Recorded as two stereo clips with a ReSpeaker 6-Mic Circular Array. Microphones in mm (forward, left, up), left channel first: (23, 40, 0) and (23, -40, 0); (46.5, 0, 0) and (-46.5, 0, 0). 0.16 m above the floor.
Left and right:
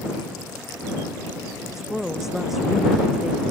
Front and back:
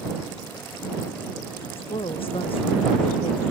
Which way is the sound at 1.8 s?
5° right.